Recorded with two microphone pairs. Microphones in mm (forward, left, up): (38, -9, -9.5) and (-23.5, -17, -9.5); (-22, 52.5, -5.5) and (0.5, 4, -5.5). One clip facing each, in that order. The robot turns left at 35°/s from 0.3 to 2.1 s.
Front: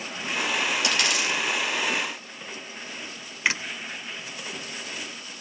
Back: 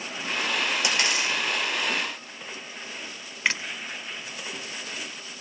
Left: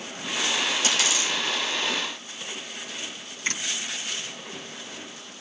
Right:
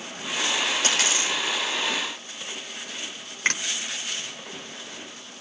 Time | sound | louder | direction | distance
0.8 | a dropped coin | even, right 1 dB | 105° right | 3.5 m
3.5 | a finger snap | front 1 dB, right 5 dB | 80° right | 1.7 m